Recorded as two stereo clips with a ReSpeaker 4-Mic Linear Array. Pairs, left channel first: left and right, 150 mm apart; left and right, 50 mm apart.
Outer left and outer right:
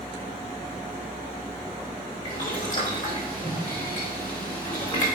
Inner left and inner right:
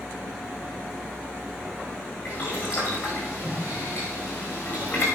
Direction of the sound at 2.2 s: 25° left (ahead or behind).